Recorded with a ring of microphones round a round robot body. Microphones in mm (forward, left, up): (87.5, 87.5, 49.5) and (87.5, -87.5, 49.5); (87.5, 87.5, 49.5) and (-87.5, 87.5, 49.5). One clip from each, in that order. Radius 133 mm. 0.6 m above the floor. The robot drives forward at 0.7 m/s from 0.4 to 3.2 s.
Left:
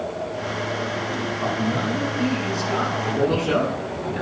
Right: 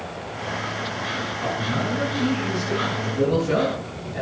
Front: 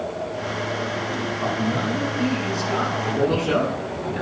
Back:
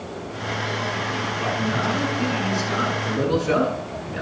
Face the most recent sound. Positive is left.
turn(degrees=90)